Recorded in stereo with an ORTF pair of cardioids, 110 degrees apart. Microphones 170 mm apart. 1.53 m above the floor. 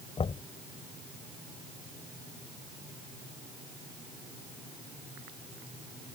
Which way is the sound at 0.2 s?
35° left.